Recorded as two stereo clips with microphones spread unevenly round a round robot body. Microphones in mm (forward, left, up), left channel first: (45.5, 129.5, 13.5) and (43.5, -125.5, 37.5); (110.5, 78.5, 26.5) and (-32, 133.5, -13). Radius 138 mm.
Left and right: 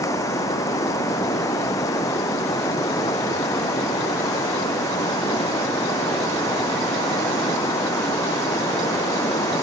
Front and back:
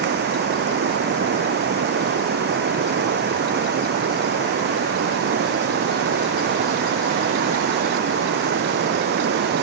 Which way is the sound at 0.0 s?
170° left.